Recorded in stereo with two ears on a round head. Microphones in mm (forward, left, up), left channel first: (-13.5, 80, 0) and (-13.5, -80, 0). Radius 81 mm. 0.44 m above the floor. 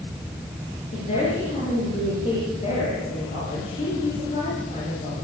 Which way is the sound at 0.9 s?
35° left (ahead or behind).